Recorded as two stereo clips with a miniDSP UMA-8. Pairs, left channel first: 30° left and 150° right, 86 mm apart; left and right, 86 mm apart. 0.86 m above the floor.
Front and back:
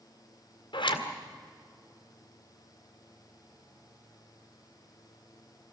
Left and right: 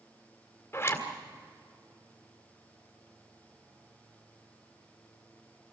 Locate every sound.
0.7 s a zipper: 30° left, 1.9 m